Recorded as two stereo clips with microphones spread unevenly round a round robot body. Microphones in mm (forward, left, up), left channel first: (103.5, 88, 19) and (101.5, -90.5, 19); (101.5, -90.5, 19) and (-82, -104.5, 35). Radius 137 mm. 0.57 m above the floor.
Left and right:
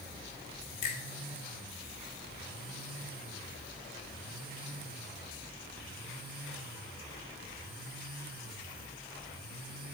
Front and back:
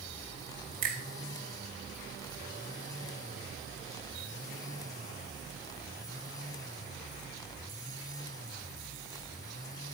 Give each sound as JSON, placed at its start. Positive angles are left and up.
{"t": 0.8, "sound": "a finger snap", "azimuth_deg": 145, "distance_m": 1.2}